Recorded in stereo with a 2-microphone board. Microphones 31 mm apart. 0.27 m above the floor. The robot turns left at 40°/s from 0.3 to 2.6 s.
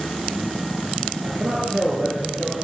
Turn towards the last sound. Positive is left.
turn(degrees=-165)